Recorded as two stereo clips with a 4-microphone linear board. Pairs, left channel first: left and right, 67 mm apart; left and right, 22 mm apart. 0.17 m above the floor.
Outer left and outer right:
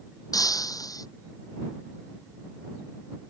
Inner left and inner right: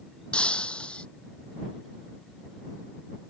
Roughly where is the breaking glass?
Left.